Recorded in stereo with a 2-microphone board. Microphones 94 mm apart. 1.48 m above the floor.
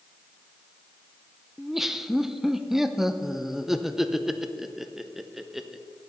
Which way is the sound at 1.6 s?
5° right (ahead or behind).